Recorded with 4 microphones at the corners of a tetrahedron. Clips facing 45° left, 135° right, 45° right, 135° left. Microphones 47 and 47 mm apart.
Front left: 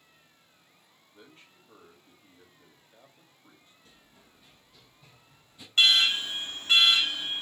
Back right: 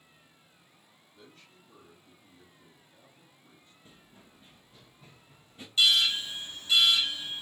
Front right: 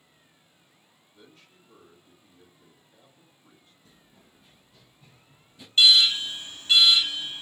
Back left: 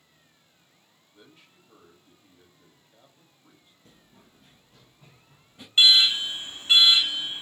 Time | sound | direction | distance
1.1 | a man speaking | 65° left | 1.1 m
3.9 | running footsteps | 160° left | 0.9 m
5.8 | an alarm | 75° left | 0.6 m